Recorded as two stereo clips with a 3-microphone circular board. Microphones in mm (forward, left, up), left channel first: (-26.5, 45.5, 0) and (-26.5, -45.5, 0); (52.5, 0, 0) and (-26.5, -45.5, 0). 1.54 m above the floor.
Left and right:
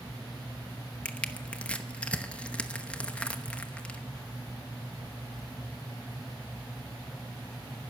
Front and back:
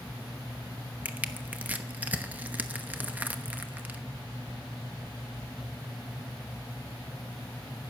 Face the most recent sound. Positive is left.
turn(degrees=155)